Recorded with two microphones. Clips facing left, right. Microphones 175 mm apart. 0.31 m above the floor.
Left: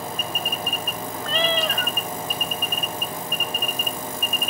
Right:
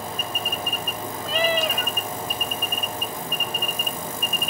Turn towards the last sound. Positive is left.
turn(degrees=-10)  # may be behind; listen again after turning